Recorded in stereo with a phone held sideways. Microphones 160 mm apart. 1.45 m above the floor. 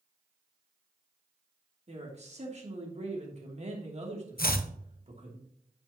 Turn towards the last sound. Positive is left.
turn(degrees=75)  # may be behind; listen again after turning